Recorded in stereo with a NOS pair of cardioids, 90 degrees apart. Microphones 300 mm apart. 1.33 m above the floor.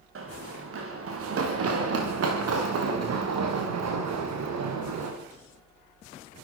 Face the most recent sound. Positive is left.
turn(degrees=-70)